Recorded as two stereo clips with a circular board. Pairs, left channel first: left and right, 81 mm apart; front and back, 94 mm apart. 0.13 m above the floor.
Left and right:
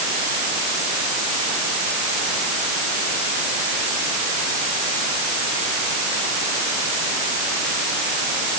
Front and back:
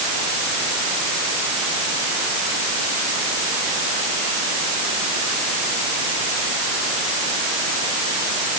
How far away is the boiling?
I don't hear boiling.